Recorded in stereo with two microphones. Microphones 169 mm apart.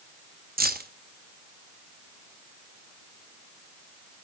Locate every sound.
0.6 s keys jangling: 60° right (ahead or behind), 0.9 m